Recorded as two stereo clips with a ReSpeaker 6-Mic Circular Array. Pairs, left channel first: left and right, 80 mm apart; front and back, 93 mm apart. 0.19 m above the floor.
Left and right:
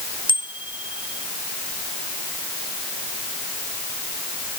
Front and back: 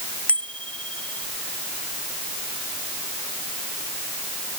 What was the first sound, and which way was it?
A bicycle bell, 75° left.